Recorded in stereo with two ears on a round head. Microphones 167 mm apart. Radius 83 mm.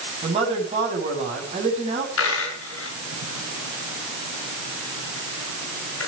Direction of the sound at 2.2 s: 85° left.